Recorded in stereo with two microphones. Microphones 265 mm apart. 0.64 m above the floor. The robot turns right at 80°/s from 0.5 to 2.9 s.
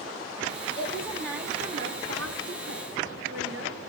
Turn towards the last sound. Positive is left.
turn(degrees=-55)